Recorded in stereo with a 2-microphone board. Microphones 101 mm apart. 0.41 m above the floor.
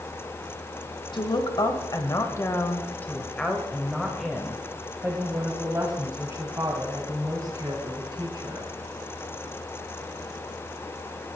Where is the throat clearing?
No throat clearing in this recording.